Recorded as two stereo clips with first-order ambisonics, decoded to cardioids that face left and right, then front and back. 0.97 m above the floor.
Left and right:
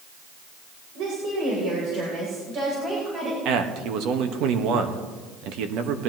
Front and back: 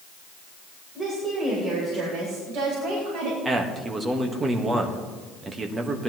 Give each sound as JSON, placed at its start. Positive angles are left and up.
{"t": 0.9, "sound": "a woman speaking", "azimuth_deg": -105, "distance_m": 3.5}
{"t": 3.5, "sound": "a man speaking", "azimuth_deg": -105, "distance_m": 1.2}